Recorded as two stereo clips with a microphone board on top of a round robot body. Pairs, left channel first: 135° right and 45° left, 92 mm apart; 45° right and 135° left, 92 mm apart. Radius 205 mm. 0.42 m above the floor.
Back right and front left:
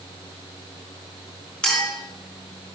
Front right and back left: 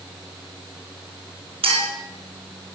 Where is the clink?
145° left, 5.5 m.